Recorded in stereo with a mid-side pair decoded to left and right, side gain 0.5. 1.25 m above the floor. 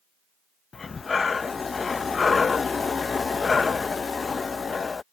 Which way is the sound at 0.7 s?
30° left.